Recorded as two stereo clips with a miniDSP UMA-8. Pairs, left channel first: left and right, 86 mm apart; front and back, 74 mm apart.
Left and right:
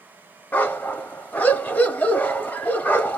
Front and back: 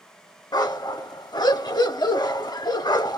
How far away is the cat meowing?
No cat meowing in this recording.